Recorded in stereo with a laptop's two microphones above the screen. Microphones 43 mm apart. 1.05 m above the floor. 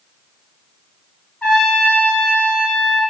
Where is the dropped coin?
No dropped coin in this recording.